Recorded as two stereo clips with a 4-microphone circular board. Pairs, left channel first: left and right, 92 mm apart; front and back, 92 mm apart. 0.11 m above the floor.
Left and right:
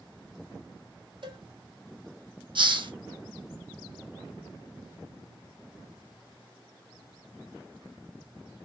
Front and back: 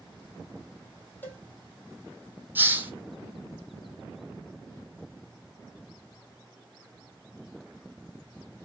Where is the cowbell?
65° right, 1.5 m.